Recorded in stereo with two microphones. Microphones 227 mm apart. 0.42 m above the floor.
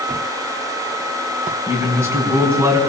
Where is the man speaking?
10° right (ahead or behind), 5 m.